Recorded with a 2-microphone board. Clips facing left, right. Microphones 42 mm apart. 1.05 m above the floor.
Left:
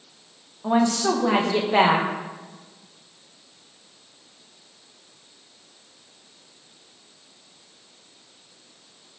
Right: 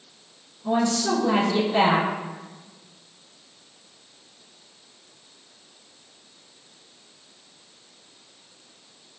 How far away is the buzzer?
No buzzer in this recording.